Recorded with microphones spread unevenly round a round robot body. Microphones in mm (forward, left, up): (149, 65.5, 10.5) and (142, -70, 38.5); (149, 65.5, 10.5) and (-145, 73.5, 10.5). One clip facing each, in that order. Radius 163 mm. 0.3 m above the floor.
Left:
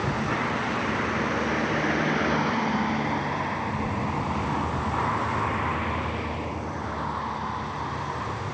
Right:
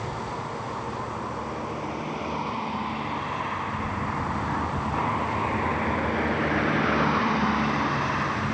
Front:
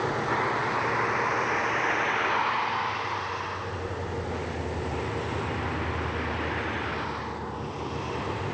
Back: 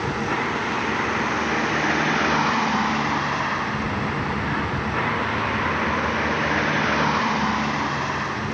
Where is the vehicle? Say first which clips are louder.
Left 5 dB, back 3 dB; 135° left; by 8.5 s 135° right.